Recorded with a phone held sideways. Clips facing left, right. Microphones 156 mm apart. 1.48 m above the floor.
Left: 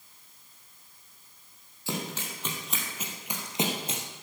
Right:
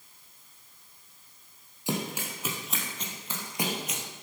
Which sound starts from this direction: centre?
Running footsteps, at 1.9 s.